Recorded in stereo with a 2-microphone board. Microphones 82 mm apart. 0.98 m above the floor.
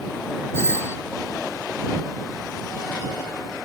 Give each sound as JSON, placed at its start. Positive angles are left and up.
{"t": 0.5, "sound": "a doorbell", "side_deg": 35}